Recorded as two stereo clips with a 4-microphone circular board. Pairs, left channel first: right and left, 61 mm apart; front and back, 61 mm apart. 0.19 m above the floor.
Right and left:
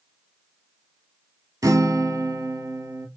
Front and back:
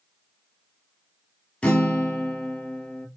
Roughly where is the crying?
I don't hear crying.